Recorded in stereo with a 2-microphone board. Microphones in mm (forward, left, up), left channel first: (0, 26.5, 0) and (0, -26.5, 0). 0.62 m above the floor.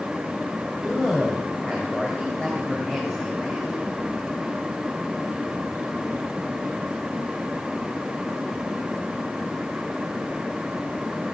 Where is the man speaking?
10° left (ahead or behind), 3 m.